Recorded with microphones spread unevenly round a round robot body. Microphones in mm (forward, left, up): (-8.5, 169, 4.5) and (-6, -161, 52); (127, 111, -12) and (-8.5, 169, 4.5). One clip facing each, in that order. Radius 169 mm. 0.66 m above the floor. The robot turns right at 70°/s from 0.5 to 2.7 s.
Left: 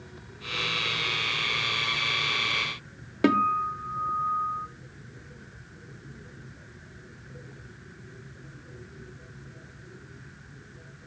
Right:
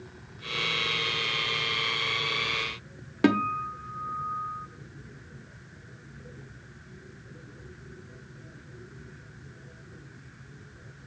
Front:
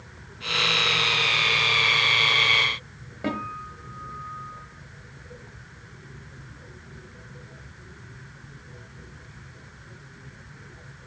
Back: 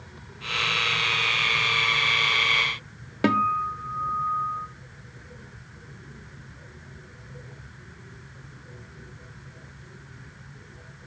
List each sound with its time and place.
3.2 s a guitar: 170° right, 0.9 m